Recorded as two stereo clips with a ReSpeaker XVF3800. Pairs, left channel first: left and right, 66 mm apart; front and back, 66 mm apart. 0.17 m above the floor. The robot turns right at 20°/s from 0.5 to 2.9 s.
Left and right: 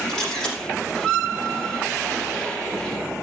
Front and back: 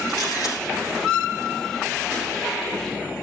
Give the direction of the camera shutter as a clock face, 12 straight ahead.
12 o'clock.